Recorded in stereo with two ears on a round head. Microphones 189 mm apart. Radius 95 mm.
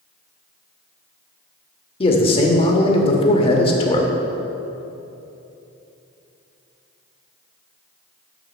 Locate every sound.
2.0 s a man speaking: 25° left (ahead or behind), 1.1 m